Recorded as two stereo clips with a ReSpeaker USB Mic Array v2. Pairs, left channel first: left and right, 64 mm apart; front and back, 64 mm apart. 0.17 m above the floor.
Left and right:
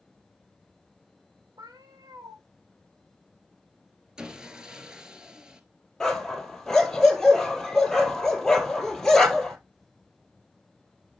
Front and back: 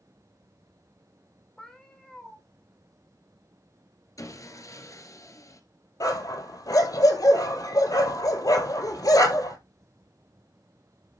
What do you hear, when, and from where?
1.6 s a cat meowing: 80° right, 3 m
4.2 s sawing: 15° right, 1.6 m
6.0 s a dog barking: 5° left, 1.9 m